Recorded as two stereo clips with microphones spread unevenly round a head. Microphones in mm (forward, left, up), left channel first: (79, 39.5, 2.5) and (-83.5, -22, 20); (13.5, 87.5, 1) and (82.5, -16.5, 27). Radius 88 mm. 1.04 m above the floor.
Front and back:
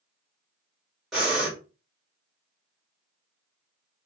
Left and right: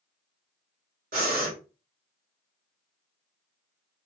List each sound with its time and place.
1.1 s breathing: 70° right, 1.5 m